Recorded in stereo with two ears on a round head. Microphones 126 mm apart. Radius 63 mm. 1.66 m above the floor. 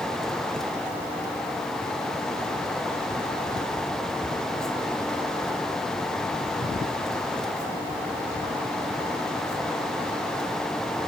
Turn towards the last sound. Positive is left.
No sound to turn to.